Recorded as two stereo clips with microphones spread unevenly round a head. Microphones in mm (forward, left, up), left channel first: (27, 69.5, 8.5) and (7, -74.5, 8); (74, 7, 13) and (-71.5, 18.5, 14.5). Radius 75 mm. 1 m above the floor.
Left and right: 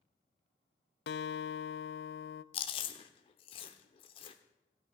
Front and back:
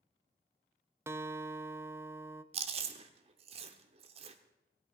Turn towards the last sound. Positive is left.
turn(degrees=135)